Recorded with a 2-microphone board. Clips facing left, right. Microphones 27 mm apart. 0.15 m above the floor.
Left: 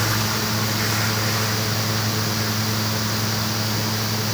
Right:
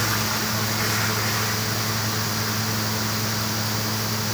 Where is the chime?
No chime in this recording.